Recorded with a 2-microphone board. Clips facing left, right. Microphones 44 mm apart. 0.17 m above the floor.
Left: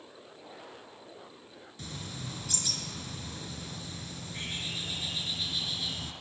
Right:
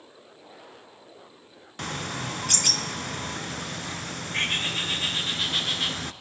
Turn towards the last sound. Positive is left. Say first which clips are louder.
# right 11 dB
turn(degrees=-65)  # may be behind; listen again after turning